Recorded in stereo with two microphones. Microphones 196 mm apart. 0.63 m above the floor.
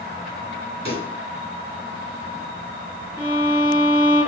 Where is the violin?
25° left (ahead or behind), 3 m.